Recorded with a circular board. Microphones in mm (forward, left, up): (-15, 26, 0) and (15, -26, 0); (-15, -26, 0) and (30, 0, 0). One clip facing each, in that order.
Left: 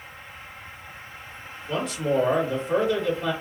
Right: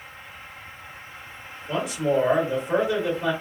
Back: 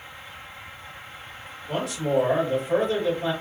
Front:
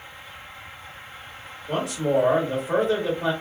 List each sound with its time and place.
1.7 s a man speaking: 20° left, 1.9 m